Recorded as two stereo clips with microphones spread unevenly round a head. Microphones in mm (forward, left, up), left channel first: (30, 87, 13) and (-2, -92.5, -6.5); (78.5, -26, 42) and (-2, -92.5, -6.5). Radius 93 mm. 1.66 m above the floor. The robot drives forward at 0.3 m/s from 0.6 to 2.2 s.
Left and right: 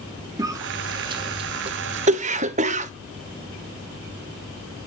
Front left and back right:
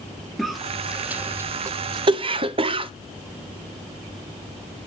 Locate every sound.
0.4 s a cough: 25° right, 0.7 m; by 2.9 s 100° right, 0.5 m